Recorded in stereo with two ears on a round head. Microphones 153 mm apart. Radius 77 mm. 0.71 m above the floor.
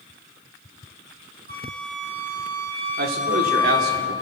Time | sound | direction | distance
1.5 | a flute | 50° right (ahead or behind) | 5.5 m
3.0 | a man speaking | 65° right (ahead or behind) | 2.5 m